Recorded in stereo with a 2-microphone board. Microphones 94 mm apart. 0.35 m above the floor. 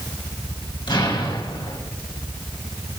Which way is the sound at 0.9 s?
50° left (ahead or behind).